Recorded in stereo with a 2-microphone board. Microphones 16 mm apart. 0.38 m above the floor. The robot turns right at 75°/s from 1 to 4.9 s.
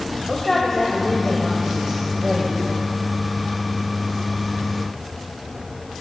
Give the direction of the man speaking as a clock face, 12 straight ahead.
7 o'clock.